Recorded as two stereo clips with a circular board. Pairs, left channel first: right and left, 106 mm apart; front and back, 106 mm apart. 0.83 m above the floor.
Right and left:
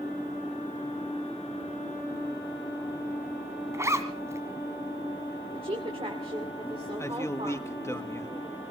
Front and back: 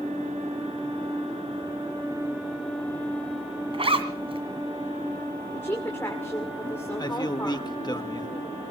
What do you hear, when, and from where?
3.7 s a zipper: 150° left, 2 m
5.5 s a woman speaking: 65° left, 2 m
7.0 s a man speaking: 35° right, 1.3 m